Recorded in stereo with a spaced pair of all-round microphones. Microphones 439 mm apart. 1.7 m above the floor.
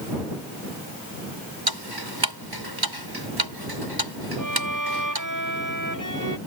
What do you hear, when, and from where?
1.7 s ticking: 55° right (ahead or behind)
4.4 s a violin: 45° right (ahead or behind)